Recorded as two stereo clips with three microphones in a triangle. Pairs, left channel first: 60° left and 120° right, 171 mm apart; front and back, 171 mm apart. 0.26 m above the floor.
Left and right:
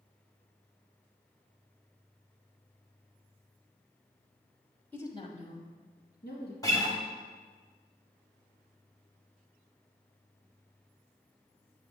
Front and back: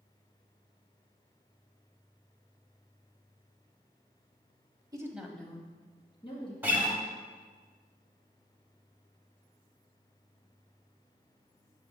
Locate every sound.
4.9 s a woman speaking: 130° left, 1.0 m; by 6.5 s 55° left, 2.5 m
6.6 s a guitar: 110° left, 1.3 m